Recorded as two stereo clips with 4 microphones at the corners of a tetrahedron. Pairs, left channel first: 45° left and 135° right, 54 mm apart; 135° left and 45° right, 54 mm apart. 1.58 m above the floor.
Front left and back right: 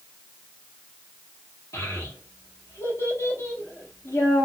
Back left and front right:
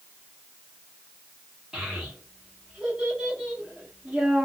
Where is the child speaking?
35° left, 1.5 m.